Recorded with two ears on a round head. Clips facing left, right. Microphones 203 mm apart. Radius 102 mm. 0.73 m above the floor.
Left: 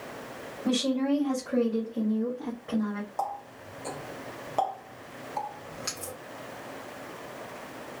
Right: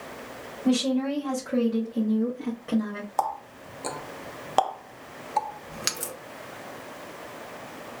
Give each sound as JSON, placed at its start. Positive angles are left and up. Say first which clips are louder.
{"t": 0.7, "sound": "a woman speaking", "louder": "right 2 dB", "side_deg": 0, "distance_m": 1.3}
{"t": 3.2, "sound": "a running tap", "louder": "right 4 dB", "side_deg": -75, "distance_m": 0.7}